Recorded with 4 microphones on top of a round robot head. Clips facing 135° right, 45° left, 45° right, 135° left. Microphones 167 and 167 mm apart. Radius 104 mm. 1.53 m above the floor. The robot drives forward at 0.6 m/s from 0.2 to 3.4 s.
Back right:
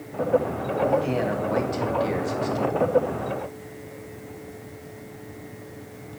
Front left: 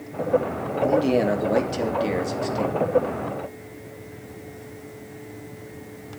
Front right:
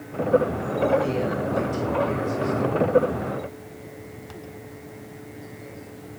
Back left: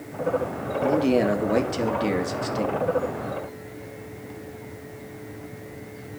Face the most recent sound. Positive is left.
turn(degrees=130)